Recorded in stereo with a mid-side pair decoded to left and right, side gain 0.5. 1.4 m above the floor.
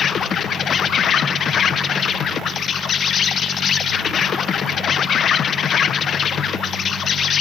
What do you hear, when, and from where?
0.0 s an insect: 45° left, 0.9 m